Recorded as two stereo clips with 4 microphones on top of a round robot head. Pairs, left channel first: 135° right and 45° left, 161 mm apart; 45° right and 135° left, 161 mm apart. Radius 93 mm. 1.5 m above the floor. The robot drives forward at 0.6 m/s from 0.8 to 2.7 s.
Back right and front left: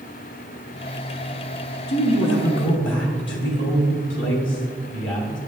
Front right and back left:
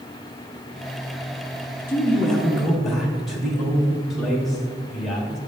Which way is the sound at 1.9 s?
125° right.